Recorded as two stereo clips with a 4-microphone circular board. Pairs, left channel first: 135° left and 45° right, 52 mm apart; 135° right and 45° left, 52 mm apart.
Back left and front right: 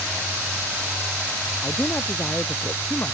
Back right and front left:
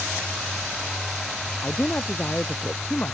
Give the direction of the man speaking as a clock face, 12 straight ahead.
6 o'clock.